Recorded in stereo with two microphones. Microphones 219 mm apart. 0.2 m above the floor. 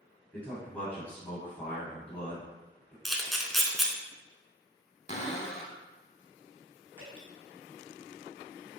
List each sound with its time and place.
0.3 s a man speaking: 10° left (ahead or behind), 1.4 m
3.0 s a camera shutter: centre (ahead or behind), 0.7 m
5.1 s a cupboard door: 30° left (ahead or behind), 0.6 m
7.0 s dripping: 25° right (ahead or behind), 1.8 m